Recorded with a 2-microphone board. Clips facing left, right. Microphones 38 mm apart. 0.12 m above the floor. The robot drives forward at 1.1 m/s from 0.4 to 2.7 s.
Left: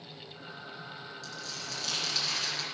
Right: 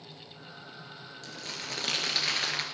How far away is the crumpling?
About 2.5 m.